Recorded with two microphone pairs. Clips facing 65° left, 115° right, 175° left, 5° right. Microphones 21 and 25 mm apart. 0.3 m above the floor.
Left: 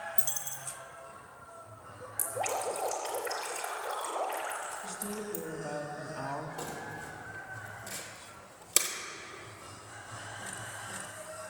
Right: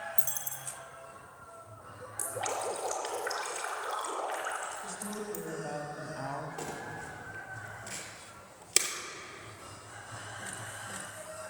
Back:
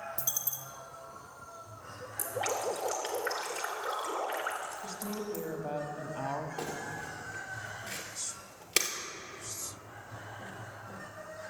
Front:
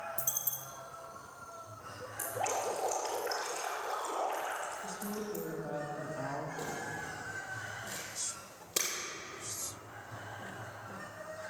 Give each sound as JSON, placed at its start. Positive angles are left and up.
{"t": 0.2, "sound": "a dropped coin", "azimuth_deg": 140, "distance_m": 1.7}
{"t": 2.2, "sound": "dripping", "azimuth_deg": -175, "distance_m": 3.0}
{"t": 4.8, "sound": "a woman speaking", "azimuth_deg": 160, "distance_m": 1.6}
{"t": 6.6, "sound": "crumpling", "azimuth_deg": 175, "distance_m": 2.5}